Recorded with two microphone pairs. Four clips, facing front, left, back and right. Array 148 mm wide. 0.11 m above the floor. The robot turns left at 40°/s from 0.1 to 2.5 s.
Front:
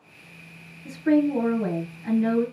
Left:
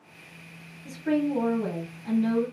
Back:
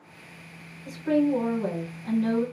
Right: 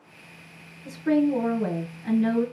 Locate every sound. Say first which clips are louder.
0.8 s a woman speaking: right 4 dB, front 2 dB; straight ahead, 1.3 m; by 2.4 s 65° right, 1.3 m